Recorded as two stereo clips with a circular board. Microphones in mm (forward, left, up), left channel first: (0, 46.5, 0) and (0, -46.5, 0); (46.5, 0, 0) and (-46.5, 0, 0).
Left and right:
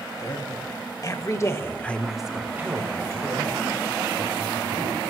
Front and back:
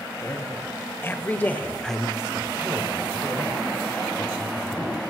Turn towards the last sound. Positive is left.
turn(degrees=-130)